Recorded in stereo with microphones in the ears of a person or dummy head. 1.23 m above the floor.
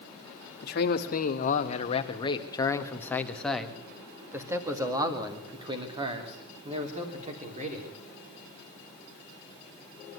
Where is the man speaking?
55° left (ahead or behind), 2 m; by 8.0 s 45° right (ahead or behind), 3.5 m.